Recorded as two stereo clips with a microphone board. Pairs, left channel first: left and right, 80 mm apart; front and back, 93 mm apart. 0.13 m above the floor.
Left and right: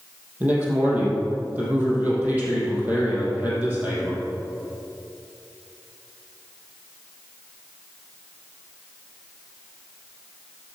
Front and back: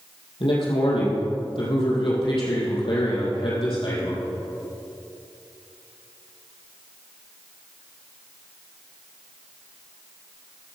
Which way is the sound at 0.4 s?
20° right.